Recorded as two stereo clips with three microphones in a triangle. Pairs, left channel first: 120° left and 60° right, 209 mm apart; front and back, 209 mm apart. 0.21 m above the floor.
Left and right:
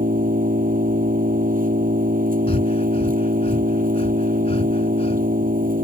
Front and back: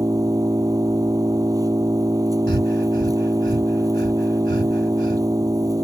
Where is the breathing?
175° left.